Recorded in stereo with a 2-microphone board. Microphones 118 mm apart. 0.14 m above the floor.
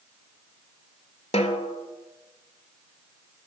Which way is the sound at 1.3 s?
60° left (ahead or behind).